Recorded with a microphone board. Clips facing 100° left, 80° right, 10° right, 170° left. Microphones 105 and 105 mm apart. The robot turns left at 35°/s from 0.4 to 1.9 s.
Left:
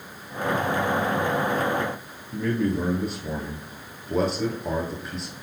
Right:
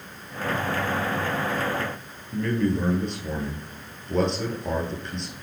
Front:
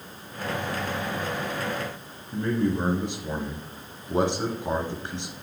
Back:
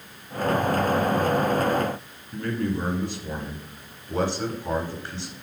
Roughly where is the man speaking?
Ahead left.